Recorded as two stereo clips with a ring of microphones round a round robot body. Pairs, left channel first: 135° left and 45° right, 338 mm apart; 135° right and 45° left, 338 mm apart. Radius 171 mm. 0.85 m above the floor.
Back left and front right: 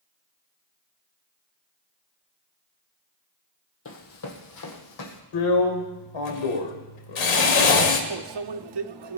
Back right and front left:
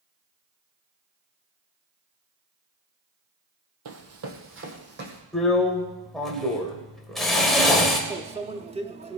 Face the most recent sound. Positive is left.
turn(degrees=-30)